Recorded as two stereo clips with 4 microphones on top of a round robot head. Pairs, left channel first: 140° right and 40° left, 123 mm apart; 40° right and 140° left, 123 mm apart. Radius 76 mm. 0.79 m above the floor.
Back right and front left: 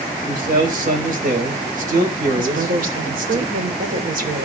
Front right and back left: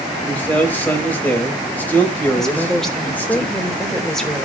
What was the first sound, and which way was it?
A man speaking, 35° left.